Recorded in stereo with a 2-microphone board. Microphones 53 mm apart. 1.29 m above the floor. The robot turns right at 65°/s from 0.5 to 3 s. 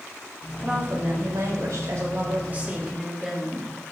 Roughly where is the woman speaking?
Behind.